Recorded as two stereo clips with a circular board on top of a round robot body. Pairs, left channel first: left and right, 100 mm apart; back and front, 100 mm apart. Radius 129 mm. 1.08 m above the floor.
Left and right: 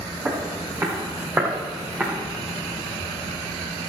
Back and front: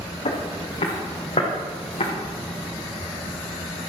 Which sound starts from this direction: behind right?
Footsteps, at 0.2 s.